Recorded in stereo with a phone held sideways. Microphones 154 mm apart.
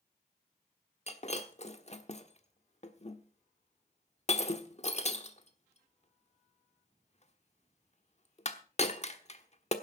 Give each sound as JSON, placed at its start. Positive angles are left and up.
{"t": 1.1, "sound": "breaking glass", "side_deg": 45, "distance_m": 1.1}